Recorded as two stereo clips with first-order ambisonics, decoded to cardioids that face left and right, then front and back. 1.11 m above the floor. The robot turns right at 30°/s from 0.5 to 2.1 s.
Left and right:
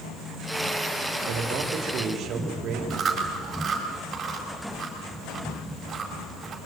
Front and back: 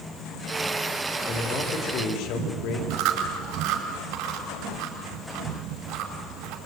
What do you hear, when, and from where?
1.3 s a man speaking: 65° right, 3 m; by 2.8 s 40° right, 3 m
2.9 s chewing: 160° right, 4.5 m